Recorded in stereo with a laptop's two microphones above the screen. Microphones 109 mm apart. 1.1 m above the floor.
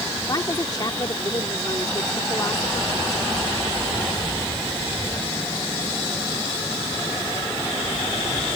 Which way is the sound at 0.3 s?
35° left (ahead or behind).